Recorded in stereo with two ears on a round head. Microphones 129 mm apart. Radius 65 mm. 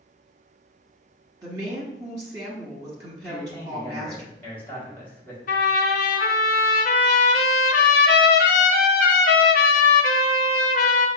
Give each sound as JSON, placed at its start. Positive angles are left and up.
{"t": 1.4, "sound": "a woman speaking", "side_deg": -25, "distance_m": 0.9}
{"t": 3.2, "sound": "a man speaking", "side_deg": 15, "distance_m": 1.9}
{"t": 5.5, "sound": "a trumpet", "side_deg": 60, "distance_m": 0.7}